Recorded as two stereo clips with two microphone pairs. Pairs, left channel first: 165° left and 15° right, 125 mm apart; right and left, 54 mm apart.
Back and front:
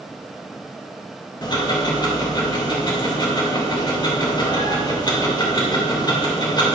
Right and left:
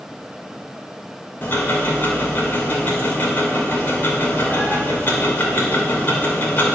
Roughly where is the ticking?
Behind right.